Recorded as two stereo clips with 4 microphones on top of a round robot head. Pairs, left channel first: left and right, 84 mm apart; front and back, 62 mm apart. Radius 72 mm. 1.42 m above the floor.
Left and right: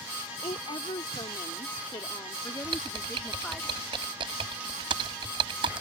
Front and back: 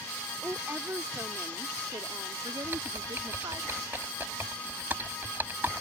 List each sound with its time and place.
0.4 s a woman speaking: 120° left; by 3.6 s 165° left
2.6 s typing on a keyboard: 105° right